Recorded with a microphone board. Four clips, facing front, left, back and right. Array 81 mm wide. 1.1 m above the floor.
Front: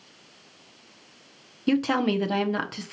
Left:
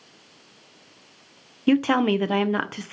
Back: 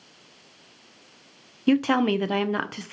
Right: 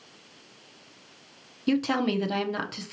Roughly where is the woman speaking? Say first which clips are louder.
Left 6 dB, back 2 dB; left.